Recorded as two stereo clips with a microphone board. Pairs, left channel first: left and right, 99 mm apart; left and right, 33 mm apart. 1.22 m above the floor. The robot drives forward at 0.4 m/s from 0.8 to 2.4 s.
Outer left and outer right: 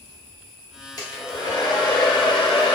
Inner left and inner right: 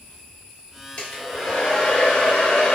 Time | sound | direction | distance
1.0 | a hair dryer | 40° left (ahead or behind) | 1.3 m